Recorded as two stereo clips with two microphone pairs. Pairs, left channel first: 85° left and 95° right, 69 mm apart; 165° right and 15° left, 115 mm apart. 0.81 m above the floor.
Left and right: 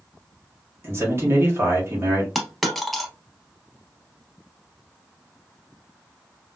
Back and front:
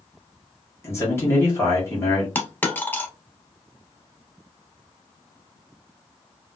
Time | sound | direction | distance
0.8 | a man speaking | 115° right | 1.1 m
2.4 | a dropped coin | 170° left | 0.7 m